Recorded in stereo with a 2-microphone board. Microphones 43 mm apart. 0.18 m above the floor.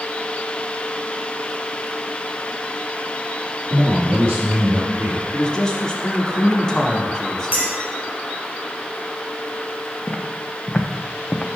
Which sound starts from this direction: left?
Footsteps, at 10.1 s.